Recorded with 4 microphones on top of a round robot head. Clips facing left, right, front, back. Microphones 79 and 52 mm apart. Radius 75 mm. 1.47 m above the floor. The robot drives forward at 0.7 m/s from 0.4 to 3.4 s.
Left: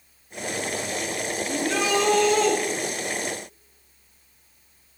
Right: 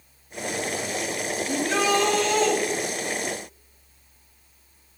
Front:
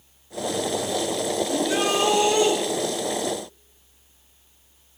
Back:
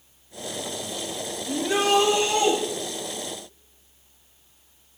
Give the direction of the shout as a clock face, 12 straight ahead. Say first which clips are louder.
Right 2 dB, back 4 dB; 5 o'clock.